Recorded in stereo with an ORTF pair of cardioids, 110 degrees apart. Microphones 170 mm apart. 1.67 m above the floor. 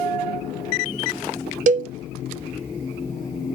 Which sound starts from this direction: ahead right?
A cowbell, at 1.7 s.